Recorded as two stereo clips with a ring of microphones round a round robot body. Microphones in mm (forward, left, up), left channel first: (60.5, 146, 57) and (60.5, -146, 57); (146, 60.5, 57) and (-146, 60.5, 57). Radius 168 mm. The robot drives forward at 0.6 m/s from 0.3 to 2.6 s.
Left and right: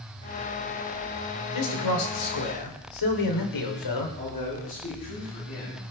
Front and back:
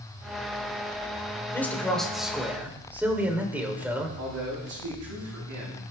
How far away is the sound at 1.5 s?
About 3 m.